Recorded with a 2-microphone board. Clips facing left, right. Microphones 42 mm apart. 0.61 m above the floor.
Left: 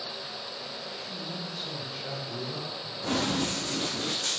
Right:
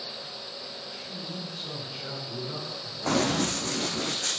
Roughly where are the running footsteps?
Right.